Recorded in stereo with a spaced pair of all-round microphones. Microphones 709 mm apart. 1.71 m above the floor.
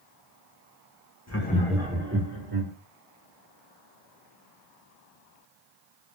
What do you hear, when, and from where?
1.3 s laughter: 25° left (ahead or behind), 0.9 m; by 2.7 s 40° right (ahead or behind), 1.4 m